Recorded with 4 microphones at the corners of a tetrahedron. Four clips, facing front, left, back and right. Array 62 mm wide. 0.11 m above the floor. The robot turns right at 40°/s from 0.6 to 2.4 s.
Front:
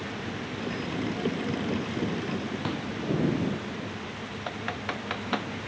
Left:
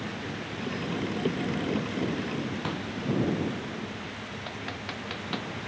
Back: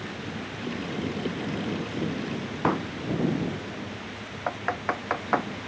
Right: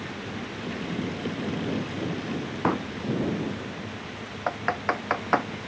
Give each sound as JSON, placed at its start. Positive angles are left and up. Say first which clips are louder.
{"t": 2.6, "sound": "a pop", "louder": "right 7 dB, back 7 dB", "azimuth_deg": -140}
{"t": 4.5, "sound": "typing on a keyboard", "louder": "right 13 dB, back 6 dB", "azimuth_deg": -125}